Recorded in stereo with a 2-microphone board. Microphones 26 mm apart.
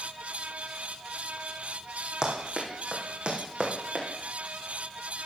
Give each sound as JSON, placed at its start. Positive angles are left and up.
{"t": 2.2, "sound": "running footsteps", "side_deg": -35, "distance_m": 3.0}